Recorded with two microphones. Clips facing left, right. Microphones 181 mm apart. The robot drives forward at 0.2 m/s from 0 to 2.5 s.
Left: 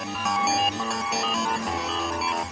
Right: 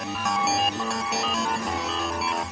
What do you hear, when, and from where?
Only background noise.